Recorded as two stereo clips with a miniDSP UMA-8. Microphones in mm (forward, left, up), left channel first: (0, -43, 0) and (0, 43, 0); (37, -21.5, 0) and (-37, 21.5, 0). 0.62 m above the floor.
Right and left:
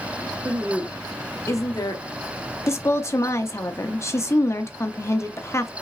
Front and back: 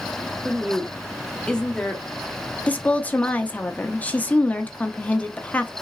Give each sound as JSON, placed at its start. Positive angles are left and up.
{"t": 0.5, "sound": "a woman speaking", "azimuth_deg": 70, "distance_m": 0.6}
{"t": 2.7, "sound": "a woman speaking", "azimuth_deg": -90, "distance_m": 0.6}